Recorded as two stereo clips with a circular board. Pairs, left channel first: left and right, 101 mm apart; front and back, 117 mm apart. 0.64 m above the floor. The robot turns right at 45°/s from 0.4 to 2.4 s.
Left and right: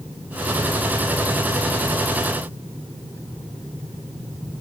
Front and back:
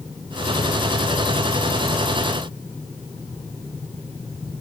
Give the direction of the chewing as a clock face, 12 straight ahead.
I don't hear chewing.